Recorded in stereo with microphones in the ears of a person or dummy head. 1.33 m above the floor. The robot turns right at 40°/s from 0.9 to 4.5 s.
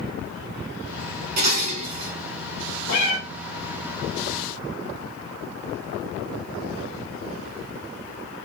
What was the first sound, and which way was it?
Dishes clattering, 55° right.